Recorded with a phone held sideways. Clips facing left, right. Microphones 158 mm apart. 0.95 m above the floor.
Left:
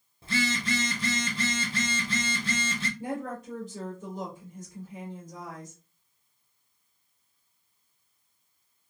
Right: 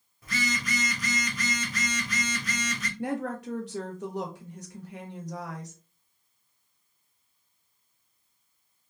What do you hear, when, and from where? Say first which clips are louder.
0.2 s a phone buzzing: left 3 dB; 30° left (ahead or behind), 0.6 m
3.0 s a woman speaking: right 7 dB; 70° right (ahead or behind), 0.8 m